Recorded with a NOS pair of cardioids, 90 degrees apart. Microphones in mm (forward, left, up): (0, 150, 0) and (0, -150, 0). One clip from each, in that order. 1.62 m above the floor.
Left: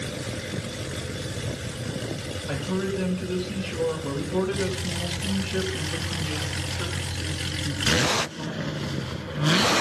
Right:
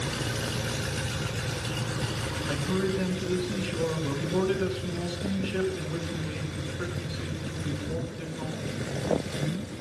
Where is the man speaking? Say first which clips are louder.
Left 1 dB; 10° left, 6 m.